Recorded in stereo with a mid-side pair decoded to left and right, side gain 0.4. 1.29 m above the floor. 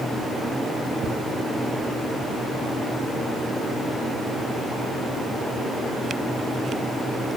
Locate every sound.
1.0 s ticking: 60° right, 1.2 m